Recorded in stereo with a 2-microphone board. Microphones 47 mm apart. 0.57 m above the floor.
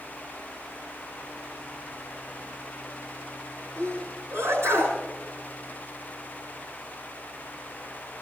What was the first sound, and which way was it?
A sneeze, 85° right.